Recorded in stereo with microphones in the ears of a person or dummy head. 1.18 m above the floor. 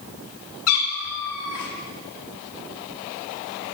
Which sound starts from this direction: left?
A cat meowing, at 0.7 s.